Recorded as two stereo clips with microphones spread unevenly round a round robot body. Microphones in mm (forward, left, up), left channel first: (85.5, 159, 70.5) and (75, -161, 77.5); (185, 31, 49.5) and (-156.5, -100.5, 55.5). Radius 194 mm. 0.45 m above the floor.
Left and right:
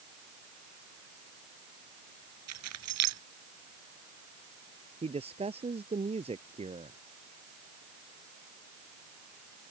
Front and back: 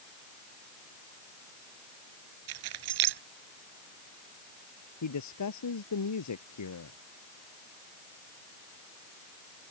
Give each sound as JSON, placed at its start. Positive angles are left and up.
{"t": 2.5, "sound": "keys jangling", "azimuth_deg": -140}
{"t": 5.0, "sound": "a man speaking", "azimuth_deg": -20}